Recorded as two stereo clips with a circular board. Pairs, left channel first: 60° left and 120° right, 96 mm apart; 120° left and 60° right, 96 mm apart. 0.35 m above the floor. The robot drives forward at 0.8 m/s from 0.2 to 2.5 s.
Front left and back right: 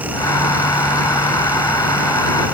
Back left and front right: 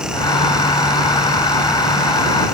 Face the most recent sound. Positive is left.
No sound to turn to.